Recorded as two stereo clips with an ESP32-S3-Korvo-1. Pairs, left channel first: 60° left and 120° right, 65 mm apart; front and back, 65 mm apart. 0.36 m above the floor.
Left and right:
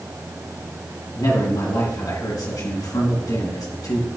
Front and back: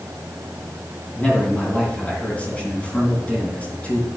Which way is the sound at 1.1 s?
70° left.